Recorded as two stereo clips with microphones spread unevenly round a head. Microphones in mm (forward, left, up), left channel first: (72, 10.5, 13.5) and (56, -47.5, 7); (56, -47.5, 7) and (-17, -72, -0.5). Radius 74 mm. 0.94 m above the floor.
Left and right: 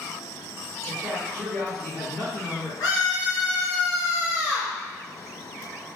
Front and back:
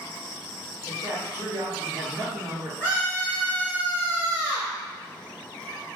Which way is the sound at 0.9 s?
125° right.